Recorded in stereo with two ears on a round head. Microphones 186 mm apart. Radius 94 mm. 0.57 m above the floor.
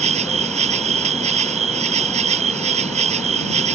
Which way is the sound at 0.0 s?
30° right (ahead or behind).